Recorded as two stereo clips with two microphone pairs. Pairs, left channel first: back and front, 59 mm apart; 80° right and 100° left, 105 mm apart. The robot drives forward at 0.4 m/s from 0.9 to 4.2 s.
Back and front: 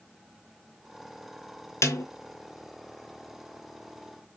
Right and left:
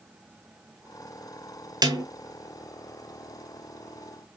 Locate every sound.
1.8 s a snare drum: 145° left, 0.7 m; by 2.0 s 150° left, 0.8 m